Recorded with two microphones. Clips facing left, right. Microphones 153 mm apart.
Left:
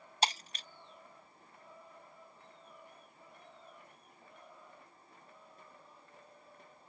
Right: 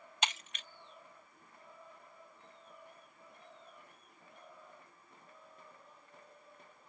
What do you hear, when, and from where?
0.2 s breaking glass: 35° left (ahead or behind)